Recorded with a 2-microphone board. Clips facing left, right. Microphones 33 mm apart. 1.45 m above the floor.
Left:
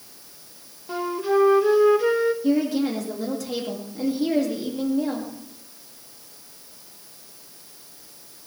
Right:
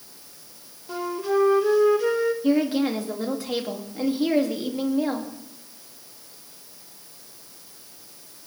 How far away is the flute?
About 1.0 m.